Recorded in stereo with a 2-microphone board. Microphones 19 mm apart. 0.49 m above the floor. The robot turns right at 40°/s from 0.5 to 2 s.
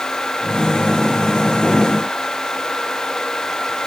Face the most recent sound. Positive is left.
No sound to turn to.